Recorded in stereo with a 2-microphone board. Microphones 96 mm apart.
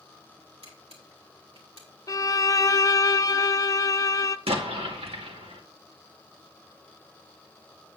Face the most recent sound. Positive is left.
turn(degrees=-85)